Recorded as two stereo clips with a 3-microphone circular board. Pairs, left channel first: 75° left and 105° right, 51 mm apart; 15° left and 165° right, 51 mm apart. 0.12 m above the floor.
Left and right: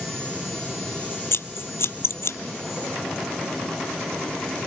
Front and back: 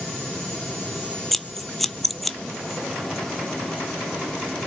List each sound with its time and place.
1.3 s scissors: 100° left, 0.6 m